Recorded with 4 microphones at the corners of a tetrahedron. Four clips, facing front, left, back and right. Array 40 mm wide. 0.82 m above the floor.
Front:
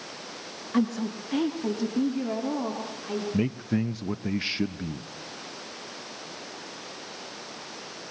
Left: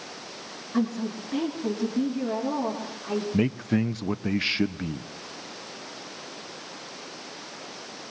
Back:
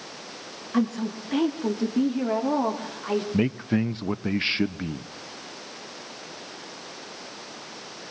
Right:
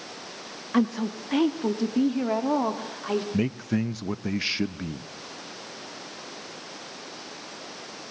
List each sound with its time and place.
0.7 s a woman speaking: 90° right, 1.6 m; by 3.2 s 130° right, 2.5 m
3.3 s a man speaking: 165° left, 0.5 m